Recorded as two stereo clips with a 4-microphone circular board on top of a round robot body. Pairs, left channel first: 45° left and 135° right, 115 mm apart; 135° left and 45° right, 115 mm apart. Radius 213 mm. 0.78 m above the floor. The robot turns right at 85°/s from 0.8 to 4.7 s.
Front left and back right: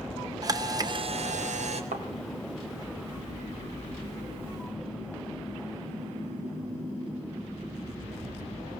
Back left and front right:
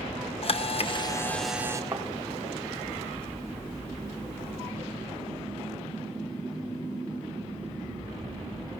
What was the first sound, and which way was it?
A camera shutter, 170° left.